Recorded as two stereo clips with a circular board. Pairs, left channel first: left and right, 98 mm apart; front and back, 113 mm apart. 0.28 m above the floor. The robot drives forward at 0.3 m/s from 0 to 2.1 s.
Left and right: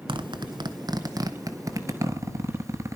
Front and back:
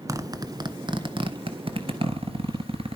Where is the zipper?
120° right, 0.7 m; by 3.0 s 145° right, 1.1 m.